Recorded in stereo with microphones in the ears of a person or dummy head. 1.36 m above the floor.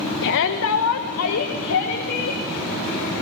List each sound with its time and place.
0.2 s a shout: 65° left (ahead or behind), 1.0 m; by 2.4 s 55° left (ahead or behind), 2.5 m